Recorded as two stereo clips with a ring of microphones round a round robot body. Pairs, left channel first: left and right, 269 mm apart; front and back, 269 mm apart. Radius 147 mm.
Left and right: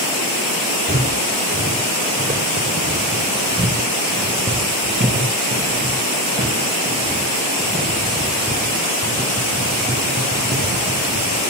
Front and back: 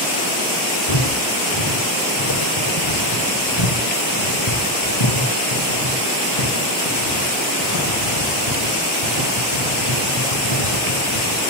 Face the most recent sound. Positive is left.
turn(degrees=-15)